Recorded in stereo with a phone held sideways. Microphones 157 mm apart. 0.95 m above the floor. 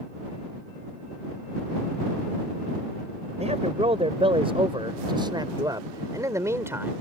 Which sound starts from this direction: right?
A man speaking, at 3.4 s.